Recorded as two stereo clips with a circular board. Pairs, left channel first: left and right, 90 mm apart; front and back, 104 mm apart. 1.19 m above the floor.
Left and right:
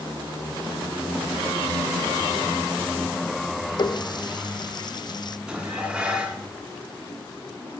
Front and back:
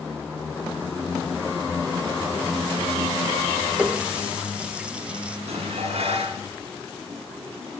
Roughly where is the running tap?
Left.